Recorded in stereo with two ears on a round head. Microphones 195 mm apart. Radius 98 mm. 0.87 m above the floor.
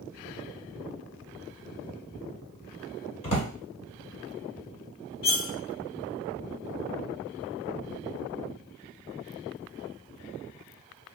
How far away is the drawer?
About 1.5 m.